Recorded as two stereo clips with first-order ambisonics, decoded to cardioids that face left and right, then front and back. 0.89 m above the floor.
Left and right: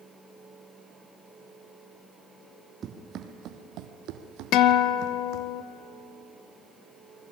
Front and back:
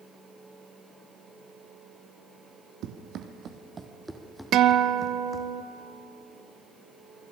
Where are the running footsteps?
150° right, 1.8 m; by 5.5 s 60° right, 2.5 m.